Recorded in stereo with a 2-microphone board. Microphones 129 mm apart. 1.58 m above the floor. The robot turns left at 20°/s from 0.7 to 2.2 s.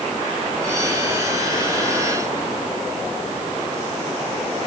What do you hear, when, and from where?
Only background noise.